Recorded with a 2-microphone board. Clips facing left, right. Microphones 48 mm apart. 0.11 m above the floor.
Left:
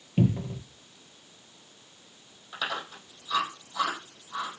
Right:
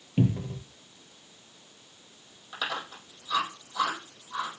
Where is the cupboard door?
Centre (ahead or behind), 0.9 m.